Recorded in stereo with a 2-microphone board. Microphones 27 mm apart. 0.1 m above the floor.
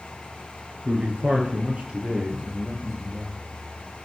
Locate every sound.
0.8 s a man speaking: 50° right (ahead or behind), 1.7 m; by 3.4 s 20° right (ahead or behind), 2.5 m